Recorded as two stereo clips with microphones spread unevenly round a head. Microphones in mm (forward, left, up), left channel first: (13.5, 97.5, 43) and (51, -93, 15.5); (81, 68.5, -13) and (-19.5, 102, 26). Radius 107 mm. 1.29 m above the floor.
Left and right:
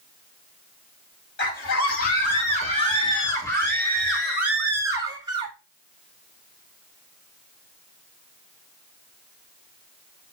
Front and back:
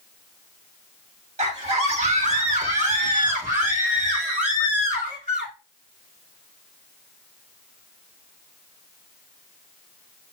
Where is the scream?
145° left, 2.5 m; by 5.5 s 145° right, 2.5 m.